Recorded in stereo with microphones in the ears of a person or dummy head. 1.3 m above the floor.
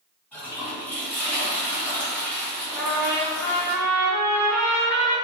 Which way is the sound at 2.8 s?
10° left (ahead or behind).